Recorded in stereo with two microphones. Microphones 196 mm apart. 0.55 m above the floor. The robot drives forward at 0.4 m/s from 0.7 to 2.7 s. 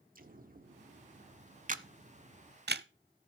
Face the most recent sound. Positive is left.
turn(degrees=-60)  # may be behind; listen again after turning